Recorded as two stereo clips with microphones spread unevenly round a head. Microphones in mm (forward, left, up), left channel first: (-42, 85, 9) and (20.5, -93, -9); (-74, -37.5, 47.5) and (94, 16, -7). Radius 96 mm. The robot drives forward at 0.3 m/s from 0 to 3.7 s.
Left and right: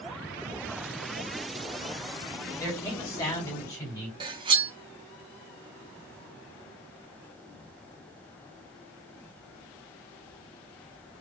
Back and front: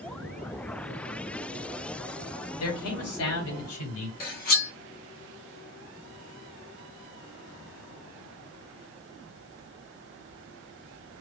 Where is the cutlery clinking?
140° right, 0.8 m.